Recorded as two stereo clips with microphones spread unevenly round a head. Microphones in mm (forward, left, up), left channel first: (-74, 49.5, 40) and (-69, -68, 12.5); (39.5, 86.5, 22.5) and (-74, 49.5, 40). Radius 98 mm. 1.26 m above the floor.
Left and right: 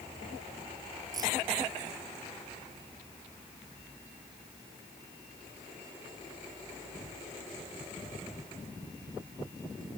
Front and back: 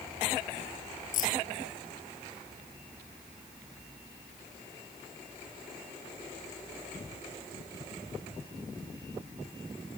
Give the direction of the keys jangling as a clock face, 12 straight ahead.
1 o'clock.